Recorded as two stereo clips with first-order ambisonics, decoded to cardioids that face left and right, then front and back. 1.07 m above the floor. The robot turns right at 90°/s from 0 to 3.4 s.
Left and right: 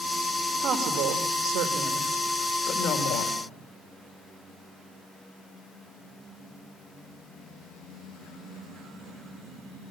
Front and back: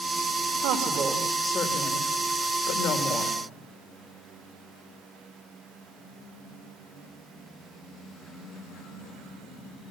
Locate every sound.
0.6 s a woman speaking: 155° right, 3 m; by 3.4 s 95° left, 3 m